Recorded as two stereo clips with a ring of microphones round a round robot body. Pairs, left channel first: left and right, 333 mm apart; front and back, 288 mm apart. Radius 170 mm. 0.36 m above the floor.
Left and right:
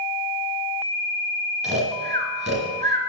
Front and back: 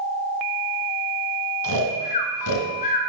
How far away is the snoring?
About 1.9 m.